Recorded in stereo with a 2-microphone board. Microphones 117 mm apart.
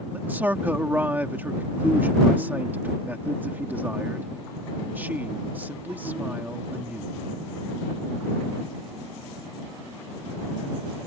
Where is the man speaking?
15° right (ahead or behind).